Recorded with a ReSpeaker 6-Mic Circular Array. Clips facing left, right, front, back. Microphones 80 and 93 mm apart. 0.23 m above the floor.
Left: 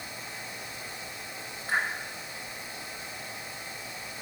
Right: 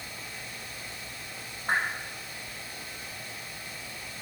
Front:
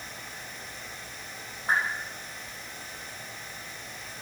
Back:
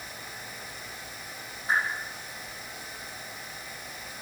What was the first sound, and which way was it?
A whoosh, 45° right.